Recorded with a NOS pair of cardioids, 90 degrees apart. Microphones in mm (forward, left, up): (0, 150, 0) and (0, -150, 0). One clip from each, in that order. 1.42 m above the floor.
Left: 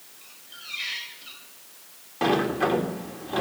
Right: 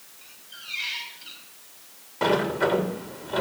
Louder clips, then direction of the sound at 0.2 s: Right 1 dB; 5° left.